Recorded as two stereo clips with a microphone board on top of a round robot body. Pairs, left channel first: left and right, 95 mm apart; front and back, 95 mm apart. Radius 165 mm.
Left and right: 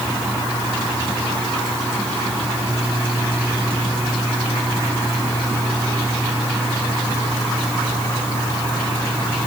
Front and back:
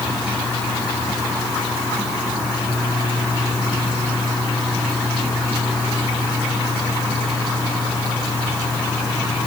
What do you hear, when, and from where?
Only background noise.